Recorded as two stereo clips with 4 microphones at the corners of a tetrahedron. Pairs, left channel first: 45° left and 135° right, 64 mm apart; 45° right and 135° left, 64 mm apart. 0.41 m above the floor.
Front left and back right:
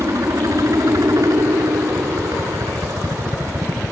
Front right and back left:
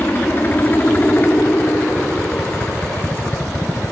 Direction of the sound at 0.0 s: 105° right.